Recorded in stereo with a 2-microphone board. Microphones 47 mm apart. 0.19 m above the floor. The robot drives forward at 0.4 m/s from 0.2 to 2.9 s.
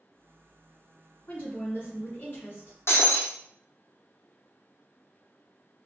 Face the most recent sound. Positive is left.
turn(degrees=65)  # may be behind; listen again after turning